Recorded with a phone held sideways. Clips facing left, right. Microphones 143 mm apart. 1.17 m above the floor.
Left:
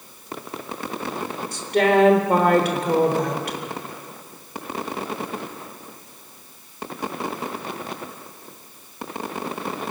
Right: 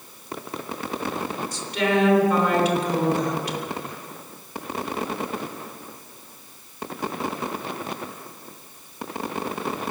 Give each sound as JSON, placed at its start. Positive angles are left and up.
{"t": 1.5, "sound": "a woman speaking", "side_deg": 60, "distance_m": 3.5}